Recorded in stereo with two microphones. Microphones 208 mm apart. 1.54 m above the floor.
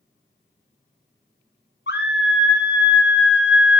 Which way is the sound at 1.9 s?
65° left (ahead or behind).